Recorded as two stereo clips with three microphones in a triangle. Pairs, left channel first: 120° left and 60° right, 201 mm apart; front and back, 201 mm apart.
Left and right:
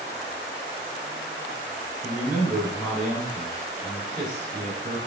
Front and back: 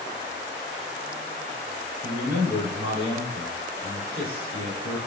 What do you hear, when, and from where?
2.0 s a man speaking: straight behind, 1.7 m